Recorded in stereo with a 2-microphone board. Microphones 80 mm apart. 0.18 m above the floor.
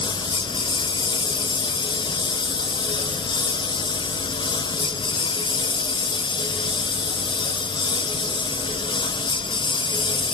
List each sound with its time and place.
0.0 s a lawn mower: 75° left (ahead or behind); by 10.4 s 85° left